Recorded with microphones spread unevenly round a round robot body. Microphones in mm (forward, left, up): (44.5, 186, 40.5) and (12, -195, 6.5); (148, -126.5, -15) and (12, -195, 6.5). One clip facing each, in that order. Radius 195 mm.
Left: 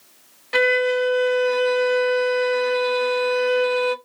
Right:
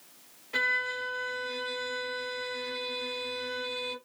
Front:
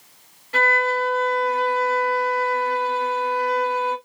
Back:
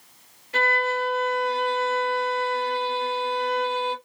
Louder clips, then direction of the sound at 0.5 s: Left 21 dB, front 3 dB; 85° left.